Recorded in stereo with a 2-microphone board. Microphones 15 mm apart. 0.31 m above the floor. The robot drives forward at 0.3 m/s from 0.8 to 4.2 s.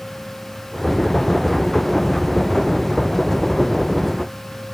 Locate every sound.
Only background noise.